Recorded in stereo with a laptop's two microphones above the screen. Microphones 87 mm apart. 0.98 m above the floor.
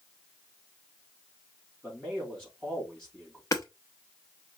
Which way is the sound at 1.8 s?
10° left (ahead or behind).